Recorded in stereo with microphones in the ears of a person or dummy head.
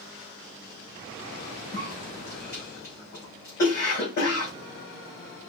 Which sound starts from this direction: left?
A cough, at 1.7 s.